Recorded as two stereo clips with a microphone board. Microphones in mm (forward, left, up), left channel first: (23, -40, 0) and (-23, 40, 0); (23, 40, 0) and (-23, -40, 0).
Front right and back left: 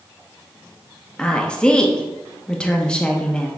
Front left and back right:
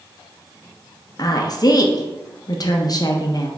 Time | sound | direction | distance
1.2 | a woman speaking | 20° left | 0.6 m